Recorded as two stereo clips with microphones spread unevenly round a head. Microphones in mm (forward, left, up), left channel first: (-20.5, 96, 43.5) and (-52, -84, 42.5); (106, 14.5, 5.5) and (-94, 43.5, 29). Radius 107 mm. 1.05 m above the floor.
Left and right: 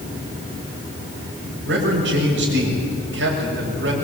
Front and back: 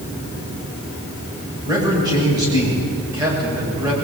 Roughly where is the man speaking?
Behind right.